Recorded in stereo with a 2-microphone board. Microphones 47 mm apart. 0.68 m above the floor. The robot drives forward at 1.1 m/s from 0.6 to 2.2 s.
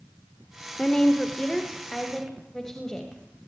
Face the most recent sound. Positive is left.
turn(degrees=10)  # may be behind; listen again after turning